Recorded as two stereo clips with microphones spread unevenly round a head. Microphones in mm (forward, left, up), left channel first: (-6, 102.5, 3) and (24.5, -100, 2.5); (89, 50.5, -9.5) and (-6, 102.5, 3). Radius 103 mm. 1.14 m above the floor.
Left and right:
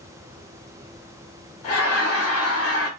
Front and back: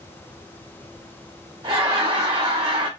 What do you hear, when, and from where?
1.6 s laughter: 95° left, 1.3 m